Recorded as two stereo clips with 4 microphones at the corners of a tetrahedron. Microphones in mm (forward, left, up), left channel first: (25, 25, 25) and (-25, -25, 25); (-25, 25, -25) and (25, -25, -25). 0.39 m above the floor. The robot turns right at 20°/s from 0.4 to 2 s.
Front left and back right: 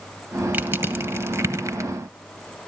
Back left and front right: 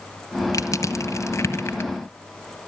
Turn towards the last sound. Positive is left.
turn(degrees=-170)